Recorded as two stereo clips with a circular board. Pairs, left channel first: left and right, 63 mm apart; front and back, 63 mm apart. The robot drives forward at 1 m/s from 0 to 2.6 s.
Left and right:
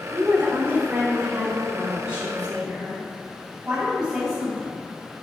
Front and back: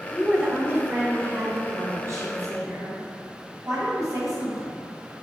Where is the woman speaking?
95° right, 1.2 m; by 4.8 s 165° right, 3 m.